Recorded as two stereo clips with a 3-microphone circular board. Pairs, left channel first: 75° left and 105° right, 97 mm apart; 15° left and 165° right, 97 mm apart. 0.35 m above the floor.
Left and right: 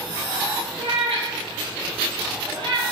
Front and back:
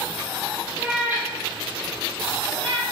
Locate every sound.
0.8 s a cat meowing: 90° right, 1.6 m; by 2.8 s 140° right, 1.1 m